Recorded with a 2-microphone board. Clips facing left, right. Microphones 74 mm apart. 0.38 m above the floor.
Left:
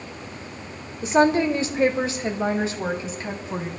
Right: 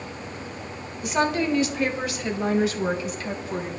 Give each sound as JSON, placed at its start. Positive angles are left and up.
{"t": 1.0, "sound": "a woman speaking", "side_deg": 30, "distance_m": 1.0}